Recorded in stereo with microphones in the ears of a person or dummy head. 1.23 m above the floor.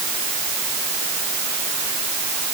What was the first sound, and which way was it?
Only background noise.